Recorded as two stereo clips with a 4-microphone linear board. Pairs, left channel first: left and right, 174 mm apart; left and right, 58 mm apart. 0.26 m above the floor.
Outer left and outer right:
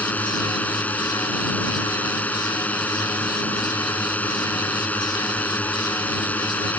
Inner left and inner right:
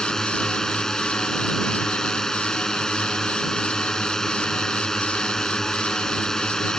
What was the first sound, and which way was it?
A drone, 10° left (ahead or behind).